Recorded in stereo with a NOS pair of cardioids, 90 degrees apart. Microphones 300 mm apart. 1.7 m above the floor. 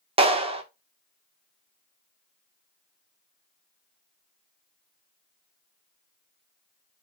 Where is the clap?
20° right, 1.9 m.